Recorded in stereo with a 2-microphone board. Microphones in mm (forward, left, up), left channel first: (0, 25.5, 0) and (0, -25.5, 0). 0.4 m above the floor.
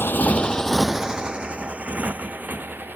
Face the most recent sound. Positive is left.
turn(degrees=-40)  # may be behind; listen again after turning